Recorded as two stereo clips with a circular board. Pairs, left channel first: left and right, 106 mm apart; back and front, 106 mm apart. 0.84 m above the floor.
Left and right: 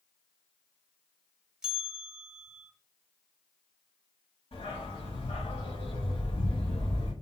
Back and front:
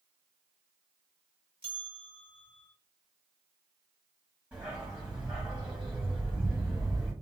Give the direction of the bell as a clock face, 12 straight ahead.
12 o'clock.